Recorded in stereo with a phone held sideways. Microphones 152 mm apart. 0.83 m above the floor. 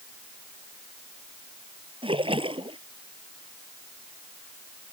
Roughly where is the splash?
Right.